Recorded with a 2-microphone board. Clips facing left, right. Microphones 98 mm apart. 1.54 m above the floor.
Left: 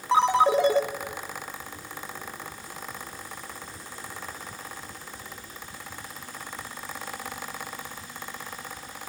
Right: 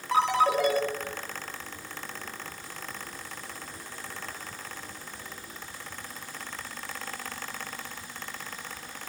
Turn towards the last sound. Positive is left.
turn(degrees=25)  # may be behind; listen again after turning